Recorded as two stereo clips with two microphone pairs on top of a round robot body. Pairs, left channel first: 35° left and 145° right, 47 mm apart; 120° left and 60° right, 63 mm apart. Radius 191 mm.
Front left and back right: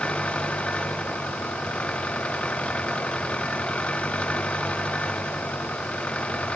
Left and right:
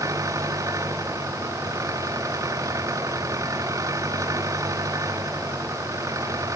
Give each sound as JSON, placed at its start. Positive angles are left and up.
{"t": 0.0, "sound": "an engine running", "azimuth_deg": -30}